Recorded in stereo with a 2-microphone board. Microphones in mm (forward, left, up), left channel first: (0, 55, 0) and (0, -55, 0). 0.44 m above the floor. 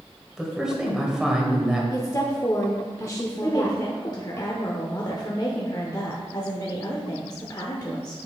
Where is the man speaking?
5° right (ahead or behind), 1.8 m.